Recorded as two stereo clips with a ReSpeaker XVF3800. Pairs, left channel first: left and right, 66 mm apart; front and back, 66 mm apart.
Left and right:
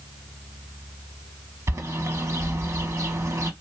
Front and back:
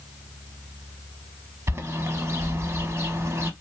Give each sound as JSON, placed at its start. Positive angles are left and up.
{"t": 1.7, "sound": "a bird", "azimuth_deg": -130, "distance_m": 0.6}